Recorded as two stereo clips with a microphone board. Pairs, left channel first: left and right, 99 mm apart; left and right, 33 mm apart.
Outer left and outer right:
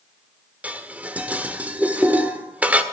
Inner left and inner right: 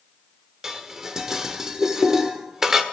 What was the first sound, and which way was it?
Dishes clattering, 15° right (ahead or behind).